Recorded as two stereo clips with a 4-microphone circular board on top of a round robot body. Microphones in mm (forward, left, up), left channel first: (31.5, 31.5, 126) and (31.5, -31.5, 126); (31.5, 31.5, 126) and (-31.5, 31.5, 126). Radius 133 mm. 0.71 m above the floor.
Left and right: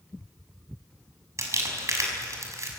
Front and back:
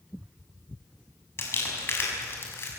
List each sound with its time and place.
1.4 s crumpling: 50° right, 6.5 m